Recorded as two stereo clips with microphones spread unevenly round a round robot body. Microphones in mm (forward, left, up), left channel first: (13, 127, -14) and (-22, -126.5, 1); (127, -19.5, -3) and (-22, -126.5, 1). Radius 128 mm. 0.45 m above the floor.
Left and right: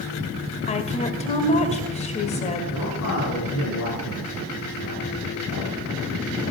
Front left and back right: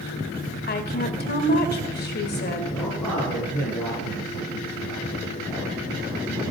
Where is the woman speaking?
20° left, 1.9 m.